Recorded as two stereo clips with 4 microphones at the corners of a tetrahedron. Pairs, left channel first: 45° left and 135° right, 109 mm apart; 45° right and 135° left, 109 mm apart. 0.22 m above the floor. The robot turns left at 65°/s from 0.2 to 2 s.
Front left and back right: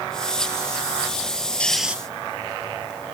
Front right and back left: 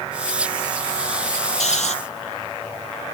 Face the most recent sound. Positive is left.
turn(degrees=-60)